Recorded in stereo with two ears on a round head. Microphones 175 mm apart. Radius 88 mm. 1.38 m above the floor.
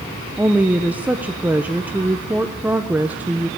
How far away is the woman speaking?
About 0.7 m.